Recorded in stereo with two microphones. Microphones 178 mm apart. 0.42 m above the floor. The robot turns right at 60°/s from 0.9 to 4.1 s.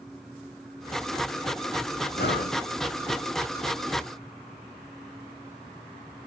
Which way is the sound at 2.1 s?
70° left (ahead or behind).